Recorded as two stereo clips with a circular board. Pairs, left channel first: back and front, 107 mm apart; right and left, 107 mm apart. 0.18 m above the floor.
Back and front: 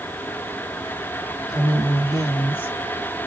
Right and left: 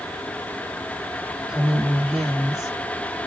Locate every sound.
1.5 s a woman speaking: 175° left, 1.7 m; by 3.3 s 155° left, 1.3 m